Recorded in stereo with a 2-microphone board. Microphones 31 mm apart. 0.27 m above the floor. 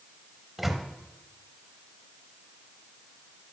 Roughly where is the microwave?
Centre.